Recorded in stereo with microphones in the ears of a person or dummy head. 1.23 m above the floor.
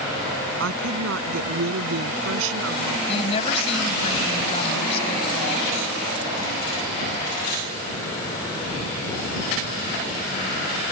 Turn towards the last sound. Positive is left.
turn(degrees=35)  # may be behind; listen again after turning